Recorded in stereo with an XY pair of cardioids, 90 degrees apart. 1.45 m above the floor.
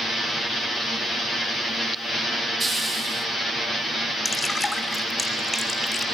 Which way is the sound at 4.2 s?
10° left.